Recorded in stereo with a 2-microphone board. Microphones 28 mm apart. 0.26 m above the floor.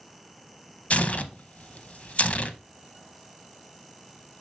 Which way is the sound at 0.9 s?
50° left (ahead or behind).